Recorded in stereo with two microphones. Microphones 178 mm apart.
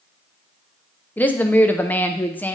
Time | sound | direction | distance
1.2 | a woman speaking | 10° left (ahead or behind) | 0.7 m